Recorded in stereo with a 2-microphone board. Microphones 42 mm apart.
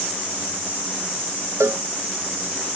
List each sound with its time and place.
1.6 s a cowbell: 85° right